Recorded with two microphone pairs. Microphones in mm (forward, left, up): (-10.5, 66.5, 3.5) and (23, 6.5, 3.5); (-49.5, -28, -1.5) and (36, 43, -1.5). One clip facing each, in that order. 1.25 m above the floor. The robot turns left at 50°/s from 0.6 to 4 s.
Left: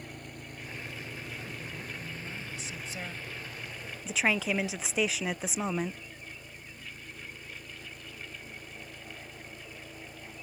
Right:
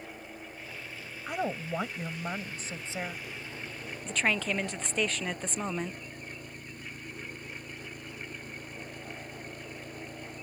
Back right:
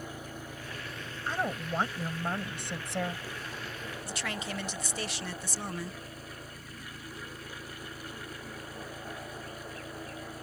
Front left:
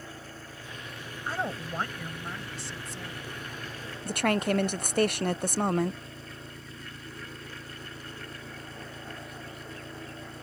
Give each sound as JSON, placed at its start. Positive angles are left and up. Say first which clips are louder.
{"t": 0.0, "sound": "an engine running", "louder": "right 1 dB, back right 2 dB", "azimuth_deg": 145}
{"t": 1.3, "sound": "a woman speaking", "louder": "right 9 dB, even", "azimuth_deg": -40}
{"t": 4.0, "sound": "a woman speaking", "louder": "left 1 dB, front left 13 dB", "azimuth_deg": 40}